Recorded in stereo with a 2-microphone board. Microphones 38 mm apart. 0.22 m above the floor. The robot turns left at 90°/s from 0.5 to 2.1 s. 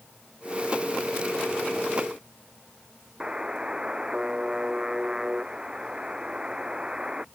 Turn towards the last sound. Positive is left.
turn(degrees=-20)  # may be behind; listen again after turning